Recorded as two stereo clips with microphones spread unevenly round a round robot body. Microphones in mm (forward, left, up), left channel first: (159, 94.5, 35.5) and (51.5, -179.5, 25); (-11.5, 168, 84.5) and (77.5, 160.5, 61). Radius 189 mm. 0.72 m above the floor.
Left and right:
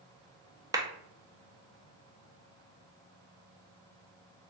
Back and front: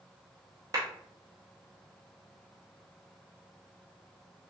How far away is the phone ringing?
No phone ringing in this recording.